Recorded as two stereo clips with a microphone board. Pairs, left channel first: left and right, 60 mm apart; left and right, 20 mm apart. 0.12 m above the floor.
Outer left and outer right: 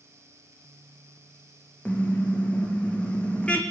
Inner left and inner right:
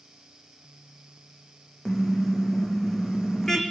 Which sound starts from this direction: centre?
A car horn, at 1.9 s.